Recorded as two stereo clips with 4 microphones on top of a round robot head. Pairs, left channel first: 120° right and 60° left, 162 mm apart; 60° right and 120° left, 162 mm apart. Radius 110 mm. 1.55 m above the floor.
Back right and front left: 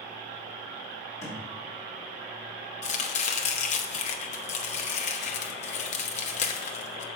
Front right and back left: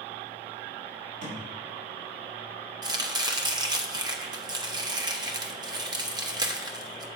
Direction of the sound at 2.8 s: 170° right.